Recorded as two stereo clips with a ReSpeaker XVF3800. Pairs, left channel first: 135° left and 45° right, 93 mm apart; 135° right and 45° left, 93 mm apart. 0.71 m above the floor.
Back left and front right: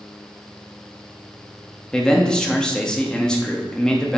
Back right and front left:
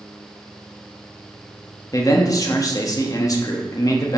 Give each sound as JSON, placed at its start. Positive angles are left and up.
{"t": 1.9, "sound": "a man speaking", "azimuth_deg": -145, "distance_m": 0.9}